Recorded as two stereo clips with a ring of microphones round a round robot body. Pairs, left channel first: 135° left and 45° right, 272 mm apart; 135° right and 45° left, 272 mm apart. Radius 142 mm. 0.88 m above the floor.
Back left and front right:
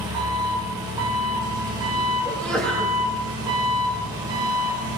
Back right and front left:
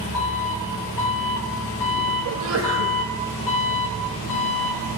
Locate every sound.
0.0 s an engine running: 120° right, 1.8 m
2.2 s a sneeze: 50° left, 0.9 m